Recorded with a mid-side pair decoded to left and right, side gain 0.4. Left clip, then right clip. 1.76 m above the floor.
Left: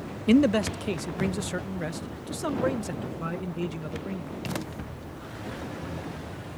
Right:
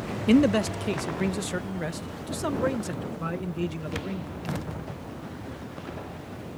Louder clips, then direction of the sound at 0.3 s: Even; straight ahead.